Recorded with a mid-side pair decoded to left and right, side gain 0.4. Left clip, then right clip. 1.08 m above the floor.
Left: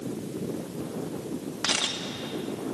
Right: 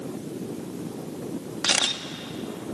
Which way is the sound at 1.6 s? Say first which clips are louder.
Right 4 dB; 45° right.